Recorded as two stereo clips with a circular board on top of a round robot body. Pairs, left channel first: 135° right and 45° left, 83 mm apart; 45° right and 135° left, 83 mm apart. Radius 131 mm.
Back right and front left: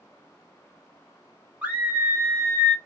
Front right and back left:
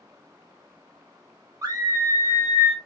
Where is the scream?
110° left, 1.7 m; by 2.8 s 75° left, 1.7 m.